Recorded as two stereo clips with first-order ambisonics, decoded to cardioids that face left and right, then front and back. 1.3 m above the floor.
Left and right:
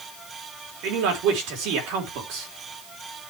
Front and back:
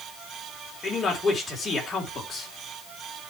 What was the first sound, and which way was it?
A man speaking, 70° right.